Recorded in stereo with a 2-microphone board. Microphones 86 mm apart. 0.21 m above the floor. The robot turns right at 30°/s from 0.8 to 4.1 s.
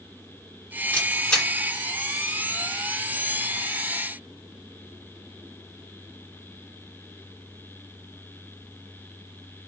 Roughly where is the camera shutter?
Centre.